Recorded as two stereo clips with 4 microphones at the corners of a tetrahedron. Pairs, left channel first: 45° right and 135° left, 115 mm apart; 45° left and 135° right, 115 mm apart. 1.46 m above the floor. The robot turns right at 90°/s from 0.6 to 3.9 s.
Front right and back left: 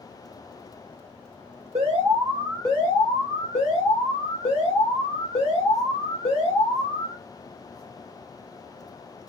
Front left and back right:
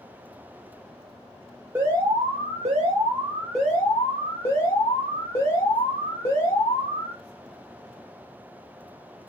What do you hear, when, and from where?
1.8 s an alarm: 155° left, 1.8 m; by 7.2 s 15° right, 1.8 m